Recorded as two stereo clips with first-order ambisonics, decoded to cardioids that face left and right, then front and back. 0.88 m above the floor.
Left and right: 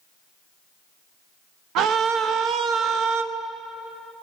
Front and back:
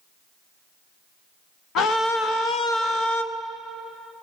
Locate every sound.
1.8 s a scream: 50° right, 0.9 m